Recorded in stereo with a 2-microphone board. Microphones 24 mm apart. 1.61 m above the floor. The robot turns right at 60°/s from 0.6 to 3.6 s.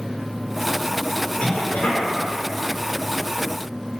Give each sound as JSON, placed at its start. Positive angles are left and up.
{"t": 1.4, "sound": "a cough", "azimuth_deg": 60, "distance_m": 5.0}